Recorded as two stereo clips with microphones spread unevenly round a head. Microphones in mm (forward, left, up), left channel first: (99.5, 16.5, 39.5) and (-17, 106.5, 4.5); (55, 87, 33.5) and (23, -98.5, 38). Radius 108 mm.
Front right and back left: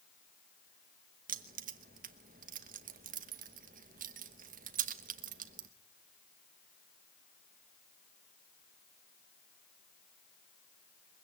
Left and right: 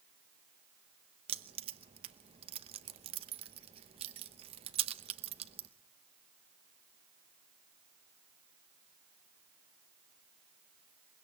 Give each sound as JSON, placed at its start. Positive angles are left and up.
{"t": 1.3, "sound": "keys jangling", "azimuth_deg": -165, "distance_m": 0.9}